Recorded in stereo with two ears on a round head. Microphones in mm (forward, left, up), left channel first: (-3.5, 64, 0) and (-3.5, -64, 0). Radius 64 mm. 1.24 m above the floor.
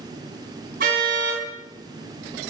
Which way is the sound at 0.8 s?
65° right (ahead or behind).